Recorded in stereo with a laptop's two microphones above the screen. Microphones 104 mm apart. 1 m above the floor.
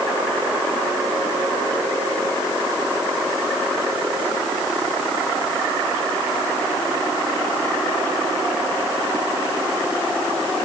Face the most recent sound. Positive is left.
No sound to turn to.